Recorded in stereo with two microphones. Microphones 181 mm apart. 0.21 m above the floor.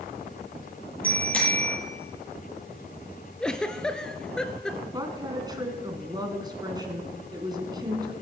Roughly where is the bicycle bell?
Centre.